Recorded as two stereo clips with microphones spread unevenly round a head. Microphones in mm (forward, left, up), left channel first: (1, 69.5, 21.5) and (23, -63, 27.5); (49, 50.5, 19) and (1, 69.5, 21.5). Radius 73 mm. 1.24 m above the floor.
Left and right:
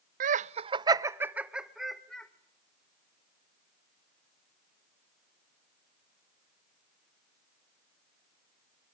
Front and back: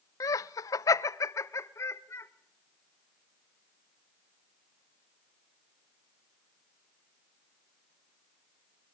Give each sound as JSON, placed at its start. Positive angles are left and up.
{"t": 0.2, "sound": "laughter", "azimuth_deg": -55, "distance_m": 0.6}